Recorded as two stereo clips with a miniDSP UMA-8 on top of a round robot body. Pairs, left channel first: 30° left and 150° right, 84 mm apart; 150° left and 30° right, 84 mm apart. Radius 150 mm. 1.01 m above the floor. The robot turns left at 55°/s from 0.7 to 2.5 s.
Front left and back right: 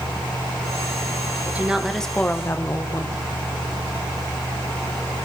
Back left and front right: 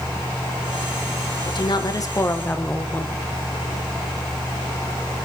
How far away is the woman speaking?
About 1.3 m.